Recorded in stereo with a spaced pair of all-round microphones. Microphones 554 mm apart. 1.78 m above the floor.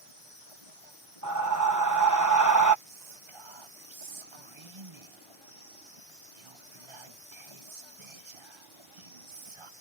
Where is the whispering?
55° right (ahead or behind).